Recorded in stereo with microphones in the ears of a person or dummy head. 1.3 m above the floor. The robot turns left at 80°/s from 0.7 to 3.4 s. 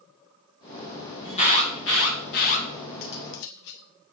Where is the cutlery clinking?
125° left, 1.2 m; by 3.9 s 95° left, 1.2 m.